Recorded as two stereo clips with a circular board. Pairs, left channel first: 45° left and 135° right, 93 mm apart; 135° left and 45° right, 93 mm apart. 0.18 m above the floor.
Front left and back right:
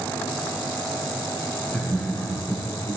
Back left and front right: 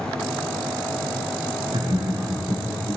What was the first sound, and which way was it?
Laughter, 35° right.